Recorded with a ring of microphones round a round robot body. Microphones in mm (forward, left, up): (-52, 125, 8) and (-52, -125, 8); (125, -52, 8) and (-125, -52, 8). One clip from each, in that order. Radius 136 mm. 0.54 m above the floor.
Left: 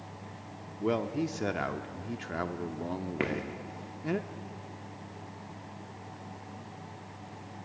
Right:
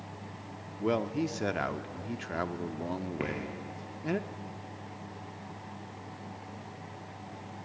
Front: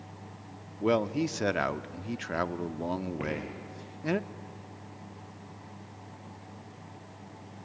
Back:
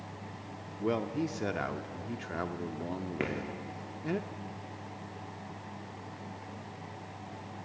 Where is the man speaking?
15° right, 0.7 m.